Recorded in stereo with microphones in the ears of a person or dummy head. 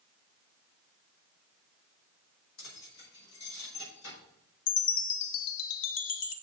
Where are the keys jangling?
70° left (ahead or behind), 5 m.